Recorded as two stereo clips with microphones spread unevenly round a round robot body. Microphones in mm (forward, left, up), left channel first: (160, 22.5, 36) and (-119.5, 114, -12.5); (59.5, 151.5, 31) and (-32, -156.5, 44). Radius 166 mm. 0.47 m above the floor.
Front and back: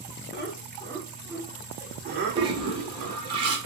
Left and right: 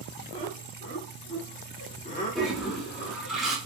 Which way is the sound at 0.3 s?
20° left.